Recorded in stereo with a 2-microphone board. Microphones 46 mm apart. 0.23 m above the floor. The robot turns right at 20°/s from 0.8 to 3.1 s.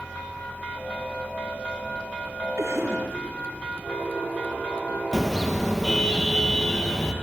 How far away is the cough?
About 4.5 m.